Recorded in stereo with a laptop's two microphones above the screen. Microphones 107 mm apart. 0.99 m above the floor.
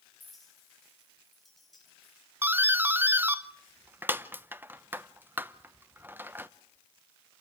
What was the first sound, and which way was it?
A clink, centre (ahead or behind).